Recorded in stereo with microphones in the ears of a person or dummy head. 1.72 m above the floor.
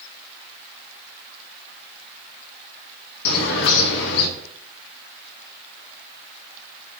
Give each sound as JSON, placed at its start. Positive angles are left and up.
{"t": 3.2, "sound": "a bird", "side_deg": 65, "distance_m": 1.0}